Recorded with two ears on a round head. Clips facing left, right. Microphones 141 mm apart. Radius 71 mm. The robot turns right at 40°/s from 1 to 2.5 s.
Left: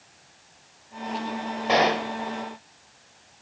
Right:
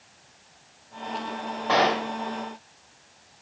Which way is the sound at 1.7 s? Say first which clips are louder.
Left 1 dB; 20° left (ahead or behind).